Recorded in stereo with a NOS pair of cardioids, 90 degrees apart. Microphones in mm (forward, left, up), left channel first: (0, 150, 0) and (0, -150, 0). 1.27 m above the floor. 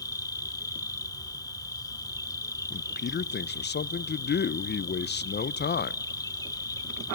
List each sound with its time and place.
0.0 s an insect: 10° left, 1.2 m
2.7 s a man speaking: 35° left, 0.9 m